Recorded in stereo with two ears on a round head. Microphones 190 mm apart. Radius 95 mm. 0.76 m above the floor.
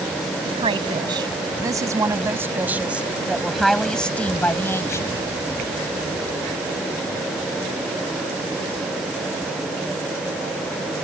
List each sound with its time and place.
0.5 s a woman speaking: 25° right (ahead or behind); by 5.1 s 15° left (ahead or behind)